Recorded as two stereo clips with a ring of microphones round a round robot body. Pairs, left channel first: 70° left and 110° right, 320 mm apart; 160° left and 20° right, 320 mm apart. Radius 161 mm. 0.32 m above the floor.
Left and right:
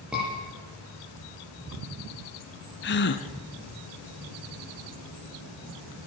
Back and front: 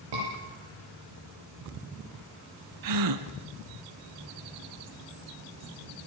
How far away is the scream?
About 9.5 m.